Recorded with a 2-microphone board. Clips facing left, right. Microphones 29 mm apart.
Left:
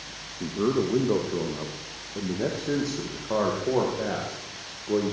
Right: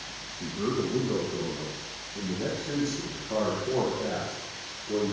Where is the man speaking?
65° left (ahead or behind), 2.5 m; by 5.1 s 55° left (ahead or behind), 5.5 m.